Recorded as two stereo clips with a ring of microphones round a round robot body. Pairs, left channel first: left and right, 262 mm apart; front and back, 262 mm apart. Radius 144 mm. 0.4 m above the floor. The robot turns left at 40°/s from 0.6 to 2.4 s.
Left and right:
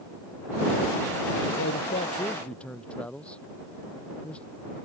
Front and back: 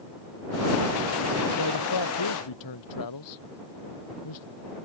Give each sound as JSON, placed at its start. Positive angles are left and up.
{"t": 1.6, "sound": "a man speaking", "azimuth_deg": 35}